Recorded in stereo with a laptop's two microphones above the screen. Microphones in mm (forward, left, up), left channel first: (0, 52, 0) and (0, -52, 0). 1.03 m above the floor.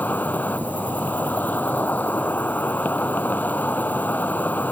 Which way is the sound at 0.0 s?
15° left (ahead or behind).